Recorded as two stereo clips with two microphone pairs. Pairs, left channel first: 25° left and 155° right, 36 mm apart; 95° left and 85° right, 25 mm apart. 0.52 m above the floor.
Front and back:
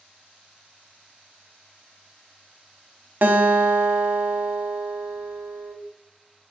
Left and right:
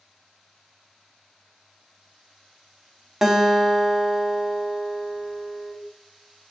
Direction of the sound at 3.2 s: 160° right.